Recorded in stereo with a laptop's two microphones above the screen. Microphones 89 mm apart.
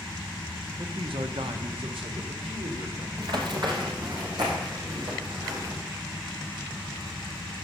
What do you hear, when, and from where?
0.8 s a man speaking: 75° right (ahead or behind), 0.8 m; by 3.1 s 85° right, 2.5 m
3.2 s running footsteps: 55° right (ahead or behind), 1.5 m; by 5.7 s 50° right (ahead or behind), 3.5 m